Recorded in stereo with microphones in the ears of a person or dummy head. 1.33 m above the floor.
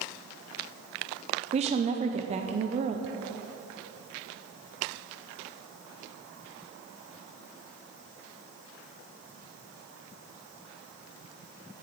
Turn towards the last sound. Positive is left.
turn(degrees=-35)  # may be behind; listen again after turning